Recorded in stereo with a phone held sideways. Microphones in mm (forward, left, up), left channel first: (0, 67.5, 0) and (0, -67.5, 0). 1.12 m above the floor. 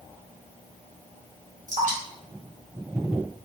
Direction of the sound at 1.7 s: 70° right (ahead or behind).